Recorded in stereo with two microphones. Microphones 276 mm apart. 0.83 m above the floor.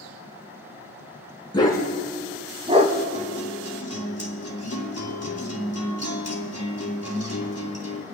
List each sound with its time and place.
1.5 s a dog barking: 15° left (ahead or behind), 2.5 m; by 3.0 s 35° right (ahead or behind), 1.6 m
3.1 s a guitar: 65° left (ahead or behind), 2.5 m